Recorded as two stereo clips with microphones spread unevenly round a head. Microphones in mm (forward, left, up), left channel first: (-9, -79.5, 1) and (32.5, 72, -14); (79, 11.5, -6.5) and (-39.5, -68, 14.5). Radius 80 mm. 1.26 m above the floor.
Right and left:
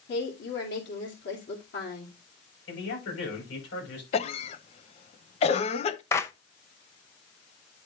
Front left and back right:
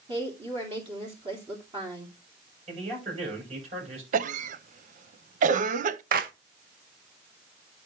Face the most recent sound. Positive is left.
turn(degrees=180)